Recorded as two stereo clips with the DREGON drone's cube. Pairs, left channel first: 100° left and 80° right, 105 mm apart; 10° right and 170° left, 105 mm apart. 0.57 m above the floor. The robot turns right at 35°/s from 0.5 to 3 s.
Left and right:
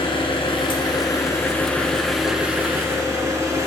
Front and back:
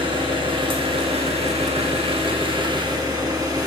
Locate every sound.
0.0 s an engine running: 135° left, 2.5 m; by 3.7 s 140° right, 2.5 m